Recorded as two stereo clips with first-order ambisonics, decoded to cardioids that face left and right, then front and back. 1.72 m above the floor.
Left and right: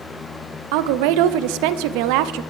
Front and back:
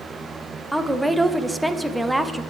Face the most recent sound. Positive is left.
turn(degrees=-95)